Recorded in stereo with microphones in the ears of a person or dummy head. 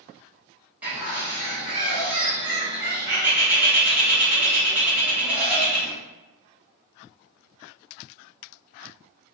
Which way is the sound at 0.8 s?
5° right (ahead or behind).